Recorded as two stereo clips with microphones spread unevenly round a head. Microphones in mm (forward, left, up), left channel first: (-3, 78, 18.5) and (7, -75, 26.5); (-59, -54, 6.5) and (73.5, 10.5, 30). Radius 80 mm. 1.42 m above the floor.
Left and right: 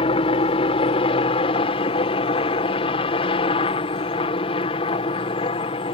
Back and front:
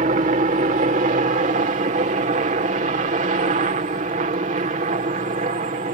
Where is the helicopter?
50° left.